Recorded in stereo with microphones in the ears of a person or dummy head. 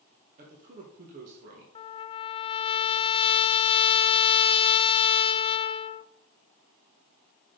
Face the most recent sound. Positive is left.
turn(degrees=35)  # may be behind; listen again after turning